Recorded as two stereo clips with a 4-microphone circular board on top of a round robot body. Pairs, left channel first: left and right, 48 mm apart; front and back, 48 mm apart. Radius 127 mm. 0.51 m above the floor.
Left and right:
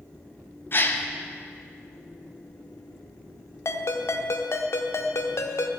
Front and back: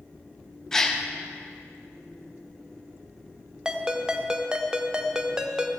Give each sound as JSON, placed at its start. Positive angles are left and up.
{"t": 0.7, "sound": "a gasp", "azimuth_deg": 75, "distance_m": 1.2}
{"t": 3.6, "sound": "a ringtone", "azimuth_deg": 105, "distance_m": 1.0}